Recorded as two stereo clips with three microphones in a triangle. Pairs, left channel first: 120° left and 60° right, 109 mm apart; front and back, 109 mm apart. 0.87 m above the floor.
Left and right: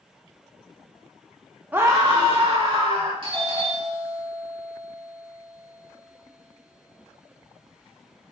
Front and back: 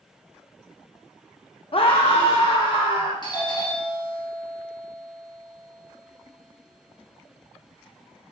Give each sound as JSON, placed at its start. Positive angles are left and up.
{"t": 1.7, "sound": "a scream", "azimuth_deg": 10, "distance_m": 0.5}
{"t": 3.2, "sound": "a doorbell", "azimuth_deg": -35, "distance_m": 1.8}